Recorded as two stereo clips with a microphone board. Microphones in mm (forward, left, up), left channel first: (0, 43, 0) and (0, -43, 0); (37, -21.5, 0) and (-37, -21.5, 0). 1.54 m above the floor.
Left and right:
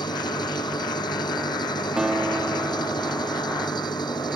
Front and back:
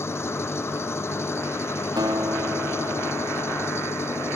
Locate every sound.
0.0 s an engine running: 55° left
2.0 s a guitar: 170° right